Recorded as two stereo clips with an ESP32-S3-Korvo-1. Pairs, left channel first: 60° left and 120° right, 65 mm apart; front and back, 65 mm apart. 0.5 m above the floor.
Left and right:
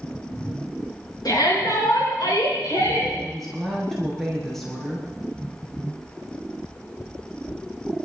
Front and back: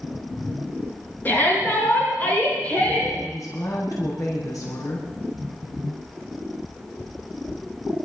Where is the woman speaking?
25° right, 6.5 m.